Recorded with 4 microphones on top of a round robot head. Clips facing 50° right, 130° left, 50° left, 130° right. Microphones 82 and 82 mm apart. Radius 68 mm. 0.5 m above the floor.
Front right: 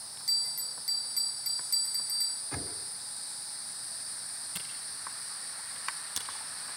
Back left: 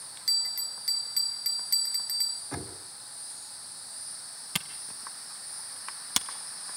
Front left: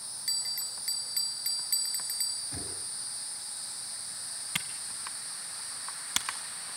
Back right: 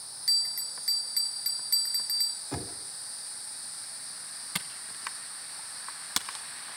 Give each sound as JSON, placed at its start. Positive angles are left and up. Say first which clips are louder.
{"t": 0.3, "sound": "a bell", "louder": "back left 3 dB, back right 5 dB", "azimuth_deg": 160, "distance_m": 1.5}
{"t": 2.5, "sound": "knocking", "louder": "back left 3 dB, back right 7 dB", "azimuth_deg": -160, "distance_m": 2.5}
{"t": 4.5, "sound": "a camera shutter", "louder": "back left 10 dB, even", "azimuth_deg": 155, "distance_m": 1.2}